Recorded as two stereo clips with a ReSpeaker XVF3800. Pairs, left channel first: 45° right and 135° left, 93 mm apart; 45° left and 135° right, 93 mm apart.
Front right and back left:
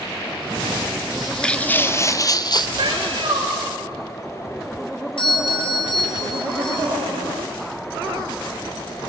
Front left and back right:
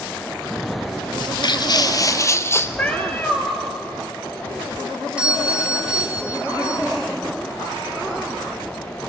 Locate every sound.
1.1 s footsteps: 50° left, 0.9 m; by 2.7 s 15° right, 1.2 m
2.8 s a cat meowing: 115° left, 2 m
5.2 s a doorbell: 55° right, 3 m